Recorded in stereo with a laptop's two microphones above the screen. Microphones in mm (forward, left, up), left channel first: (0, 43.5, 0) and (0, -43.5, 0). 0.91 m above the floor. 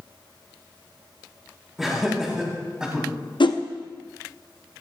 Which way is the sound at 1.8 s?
5° right (ahead or behind).